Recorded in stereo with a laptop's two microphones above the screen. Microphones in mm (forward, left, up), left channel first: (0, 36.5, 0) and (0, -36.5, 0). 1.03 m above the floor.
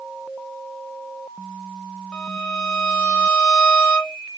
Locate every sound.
2.1 s a violin: 15° left (ahead or behind), 0.9 m